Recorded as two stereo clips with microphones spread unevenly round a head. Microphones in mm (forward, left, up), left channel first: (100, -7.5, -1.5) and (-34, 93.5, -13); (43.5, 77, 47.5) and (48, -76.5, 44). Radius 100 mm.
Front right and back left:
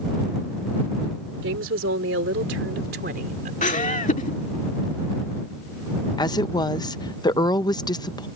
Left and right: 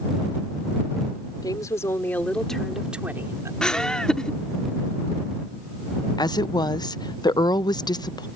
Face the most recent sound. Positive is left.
turn(degrees=30)